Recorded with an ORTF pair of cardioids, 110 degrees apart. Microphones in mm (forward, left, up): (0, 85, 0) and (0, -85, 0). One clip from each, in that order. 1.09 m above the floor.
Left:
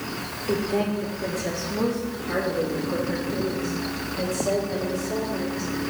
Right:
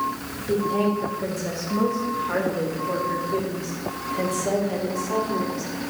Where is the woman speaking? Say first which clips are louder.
Right 3 dB; 15° left, 1.9 m; by 5.7 s 40° right, 3.5 m.